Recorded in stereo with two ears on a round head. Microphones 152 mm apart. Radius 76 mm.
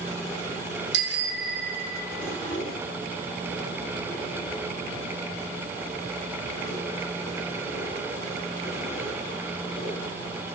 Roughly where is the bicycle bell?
Right.